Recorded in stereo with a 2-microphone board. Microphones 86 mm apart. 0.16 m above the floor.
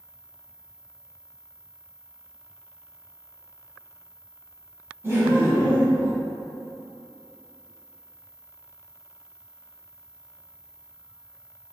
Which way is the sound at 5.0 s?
30° right (ahead or behind).